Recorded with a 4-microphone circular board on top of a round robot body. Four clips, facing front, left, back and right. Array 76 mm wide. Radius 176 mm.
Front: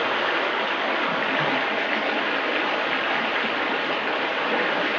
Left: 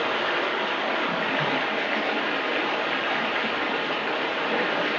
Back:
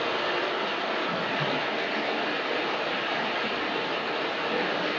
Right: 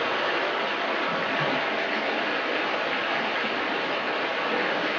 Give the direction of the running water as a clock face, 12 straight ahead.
12 o'clock.